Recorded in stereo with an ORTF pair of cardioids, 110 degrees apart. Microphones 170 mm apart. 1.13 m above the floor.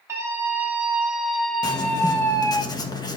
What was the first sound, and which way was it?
A scream, 15° right.